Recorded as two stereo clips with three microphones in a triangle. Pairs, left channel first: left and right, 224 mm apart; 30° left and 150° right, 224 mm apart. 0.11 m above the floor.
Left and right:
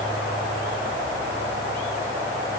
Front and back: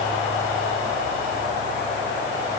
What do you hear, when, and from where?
Only background noise.